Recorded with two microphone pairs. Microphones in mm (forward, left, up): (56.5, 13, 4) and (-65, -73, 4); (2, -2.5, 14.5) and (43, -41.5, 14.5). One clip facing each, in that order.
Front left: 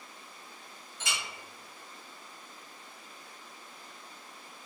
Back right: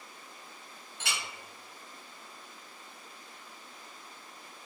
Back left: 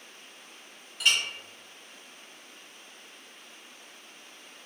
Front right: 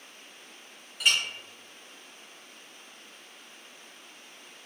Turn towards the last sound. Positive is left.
turn(degrees=-125)